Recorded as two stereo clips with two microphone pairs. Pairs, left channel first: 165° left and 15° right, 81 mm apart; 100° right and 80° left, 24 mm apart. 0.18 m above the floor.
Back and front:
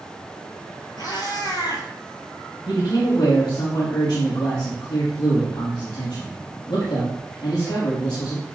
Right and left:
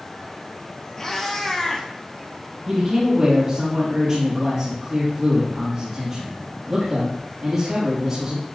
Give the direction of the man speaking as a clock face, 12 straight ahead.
7 o'clock.